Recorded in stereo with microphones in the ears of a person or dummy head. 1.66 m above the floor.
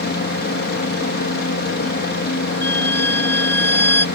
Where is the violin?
10° left (ahead or behind).